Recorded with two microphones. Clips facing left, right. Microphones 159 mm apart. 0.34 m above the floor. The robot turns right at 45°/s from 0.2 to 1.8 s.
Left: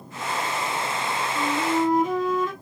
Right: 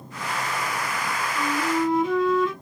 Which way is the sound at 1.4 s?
50° left (ahead or behind).